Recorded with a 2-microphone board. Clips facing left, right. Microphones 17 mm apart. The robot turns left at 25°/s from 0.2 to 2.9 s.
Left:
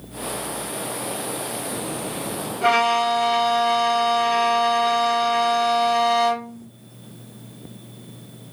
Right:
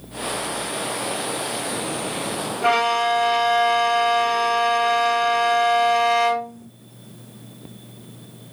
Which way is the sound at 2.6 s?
5° left (ahead or behind).